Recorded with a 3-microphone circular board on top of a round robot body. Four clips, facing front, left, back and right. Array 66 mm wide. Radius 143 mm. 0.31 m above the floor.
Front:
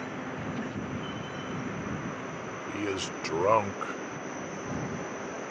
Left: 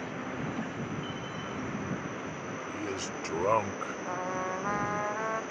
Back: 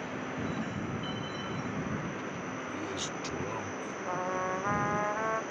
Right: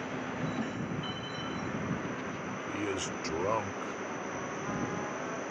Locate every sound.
2.7 s a man speaking: 35° right; by 4.0 s 35° left
4.1 s a trumpet: 145° left